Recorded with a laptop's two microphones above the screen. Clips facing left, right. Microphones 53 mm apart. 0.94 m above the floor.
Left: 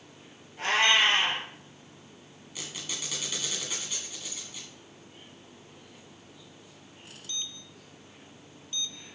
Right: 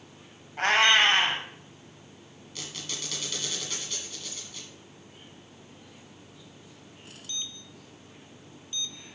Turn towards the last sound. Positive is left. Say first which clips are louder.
# even
turn(degrees=10)  # may be behind; listen again after turning